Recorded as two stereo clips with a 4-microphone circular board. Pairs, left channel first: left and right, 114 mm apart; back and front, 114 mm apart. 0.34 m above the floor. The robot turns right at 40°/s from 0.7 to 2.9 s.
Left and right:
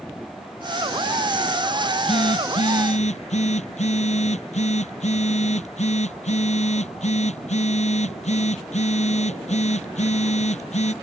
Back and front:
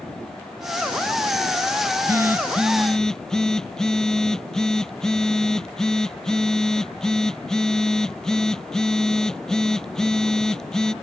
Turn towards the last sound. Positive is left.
turn(degrees=95)